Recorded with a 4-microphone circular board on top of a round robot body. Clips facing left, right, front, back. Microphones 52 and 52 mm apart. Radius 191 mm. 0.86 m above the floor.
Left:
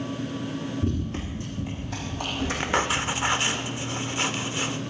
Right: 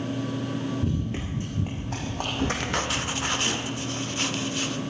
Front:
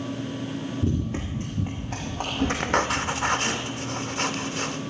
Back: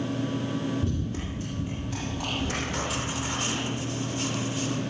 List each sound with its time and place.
0.8 s running footsteps: 15° left, 0.8 m; by 3.6 s 50° right, 4 m
2.6 s writing: 20° left, 0.9 m